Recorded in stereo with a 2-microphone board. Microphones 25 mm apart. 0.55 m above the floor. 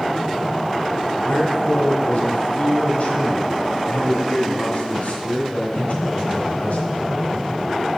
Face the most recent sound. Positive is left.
turn(degrees=65)  # may be behind; listen again after turning